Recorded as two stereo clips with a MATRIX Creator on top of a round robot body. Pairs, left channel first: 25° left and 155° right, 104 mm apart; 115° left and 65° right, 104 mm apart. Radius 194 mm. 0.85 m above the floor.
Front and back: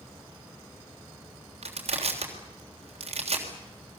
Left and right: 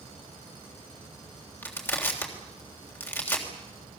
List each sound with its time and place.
1.6 s crushing: straight behind, 3.5 m